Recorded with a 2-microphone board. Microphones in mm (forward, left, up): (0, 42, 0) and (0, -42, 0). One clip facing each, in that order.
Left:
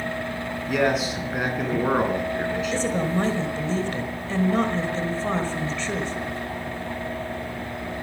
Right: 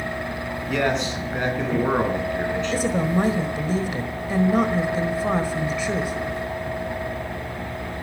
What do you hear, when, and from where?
0.7 s a man speaking: 5° left (ahead or behind), 4 m
2.7 s a woman speaking: 10° right (ahead or behind), 1.4 m